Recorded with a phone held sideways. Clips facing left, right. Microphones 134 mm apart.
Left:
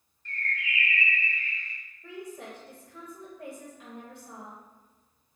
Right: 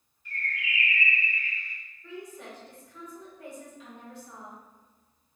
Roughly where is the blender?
No blender in this recording.